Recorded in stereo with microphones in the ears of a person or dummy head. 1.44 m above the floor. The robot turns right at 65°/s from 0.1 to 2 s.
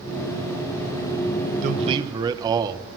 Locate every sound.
1.6 s a man speaking: 45° right (ahead or behind), 0.9 m; by 2.9 s 20° right (ahead or behind), 0.9 m